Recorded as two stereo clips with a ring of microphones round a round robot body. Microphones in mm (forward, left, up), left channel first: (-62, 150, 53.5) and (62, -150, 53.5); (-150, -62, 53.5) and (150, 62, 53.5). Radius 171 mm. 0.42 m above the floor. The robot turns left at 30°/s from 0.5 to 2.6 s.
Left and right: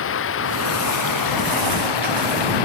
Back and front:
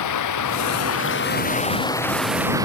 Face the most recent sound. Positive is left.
turn(degrees=105)